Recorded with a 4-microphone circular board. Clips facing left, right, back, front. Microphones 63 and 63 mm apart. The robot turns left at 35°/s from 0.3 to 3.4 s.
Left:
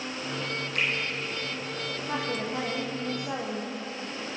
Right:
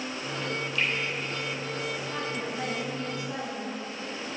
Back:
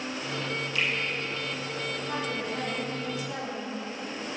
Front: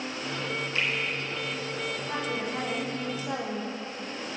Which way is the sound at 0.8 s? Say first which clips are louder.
Even, back 1 dB; 55° left.